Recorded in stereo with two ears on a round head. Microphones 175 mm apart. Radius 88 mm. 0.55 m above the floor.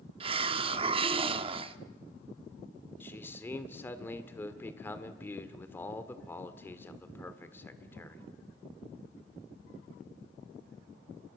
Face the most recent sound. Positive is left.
turn(degrees=10)  # may be behind; listen again after turning